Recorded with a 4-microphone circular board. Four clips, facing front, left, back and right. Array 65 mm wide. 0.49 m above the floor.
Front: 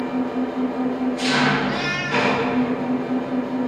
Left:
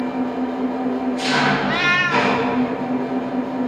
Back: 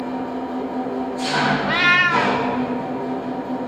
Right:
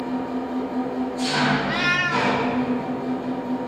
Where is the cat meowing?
160° left, 0.9 m.